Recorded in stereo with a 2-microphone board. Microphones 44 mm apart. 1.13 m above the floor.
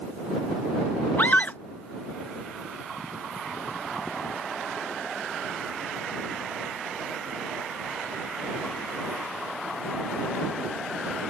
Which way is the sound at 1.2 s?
50° left (ahead or behind).